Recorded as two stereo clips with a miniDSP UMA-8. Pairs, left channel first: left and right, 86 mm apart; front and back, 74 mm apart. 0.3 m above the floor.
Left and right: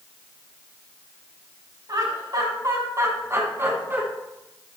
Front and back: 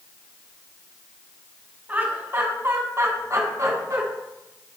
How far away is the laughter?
About 2.0 m.